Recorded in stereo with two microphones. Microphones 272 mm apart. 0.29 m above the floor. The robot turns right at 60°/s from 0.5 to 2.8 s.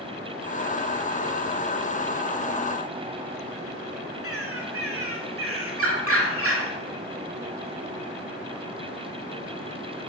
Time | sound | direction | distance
4.2 | a bird | 60° right (ahead or behind) | 0.7 m